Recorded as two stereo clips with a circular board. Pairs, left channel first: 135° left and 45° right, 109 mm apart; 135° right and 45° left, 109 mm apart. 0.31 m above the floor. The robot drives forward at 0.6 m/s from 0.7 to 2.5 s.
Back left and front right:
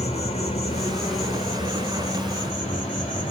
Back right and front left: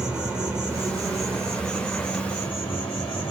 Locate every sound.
0.0 s an insect: 130° left, 1.6 m; by 3.3 s 150° left, 2.5 m